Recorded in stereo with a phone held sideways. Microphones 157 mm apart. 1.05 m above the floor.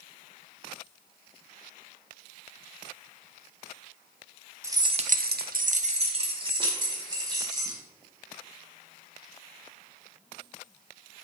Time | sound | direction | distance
4.6 | keys jangling | 20° right (ahead or behind) | 1.0 m